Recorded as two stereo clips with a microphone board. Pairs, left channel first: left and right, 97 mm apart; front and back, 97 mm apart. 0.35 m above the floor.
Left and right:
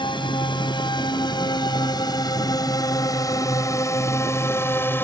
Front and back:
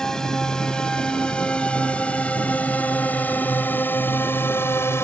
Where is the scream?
I don't hear a scream.